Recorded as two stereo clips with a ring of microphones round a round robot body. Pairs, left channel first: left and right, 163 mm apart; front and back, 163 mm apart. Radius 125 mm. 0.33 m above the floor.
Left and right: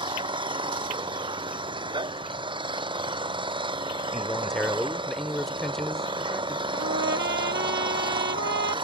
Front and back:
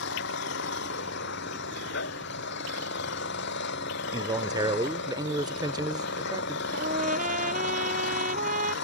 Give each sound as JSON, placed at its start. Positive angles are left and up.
{"t": 0.0, "sound": "an engine running", "azimuth_deg": -30}
{"t": 4.1, "sound": "a man speaking", "azimuth_deg": 175}
{"t": 6.7, "sound": "a trumpet", "azimuth_deg": -125}